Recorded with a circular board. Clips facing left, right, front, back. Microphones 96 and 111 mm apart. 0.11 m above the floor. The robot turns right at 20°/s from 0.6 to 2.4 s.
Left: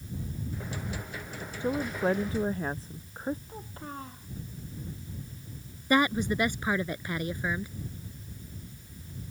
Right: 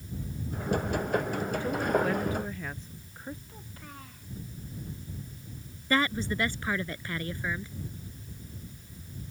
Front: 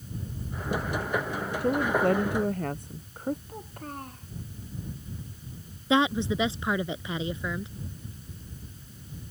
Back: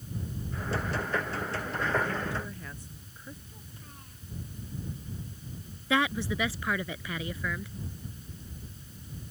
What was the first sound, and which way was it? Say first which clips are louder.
A woman speaking: even, front 8 dB; 15° left.